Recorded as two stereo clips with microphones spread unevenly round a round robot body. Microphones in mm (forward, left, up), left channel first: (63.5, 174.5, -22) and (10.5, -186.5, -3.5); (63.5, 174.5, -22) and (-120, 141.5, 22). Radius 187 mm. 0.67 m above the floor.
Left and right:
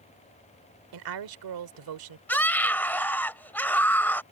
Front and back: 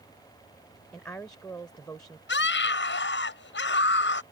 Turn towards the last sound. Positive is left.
turn(degrees=-5)